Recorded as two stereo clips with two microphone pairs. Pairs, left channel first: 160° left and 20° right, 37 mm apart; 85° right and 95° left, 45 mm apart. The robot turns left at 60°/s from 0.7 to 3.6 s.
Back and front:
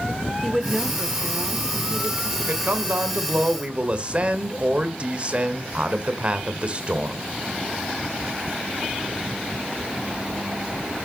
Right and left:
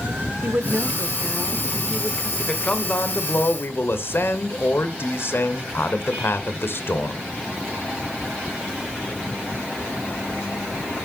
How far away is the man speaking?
About 1.6 m.